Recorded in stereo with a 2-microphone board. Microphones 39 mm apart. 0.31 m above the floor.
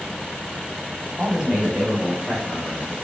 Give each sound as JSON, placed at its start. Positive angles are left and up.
{"t": 1.2, "sound": "a man speaking", "side_deg": -30, "distance_m": 1.7}